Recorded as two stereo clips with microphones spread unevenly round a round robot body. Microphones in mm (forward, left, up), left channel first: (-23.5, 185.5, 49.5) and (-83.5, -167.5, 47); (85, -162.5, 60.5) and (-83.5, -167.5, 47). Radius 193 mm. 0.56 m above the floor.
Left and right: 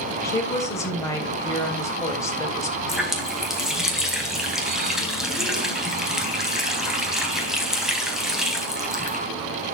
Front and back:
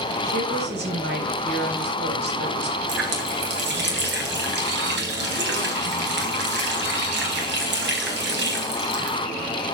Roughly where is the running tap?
Behind.